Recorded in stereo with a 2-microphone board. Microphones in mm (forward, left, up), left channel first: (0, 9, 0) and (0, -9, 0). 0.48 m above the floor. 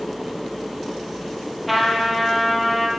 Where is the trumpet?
Centre (ahead or behind), 1.9 m.